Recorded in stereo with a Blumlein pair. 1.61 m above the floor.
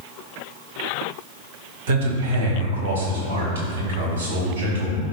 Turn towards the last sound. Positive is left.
turn(degrees=-65)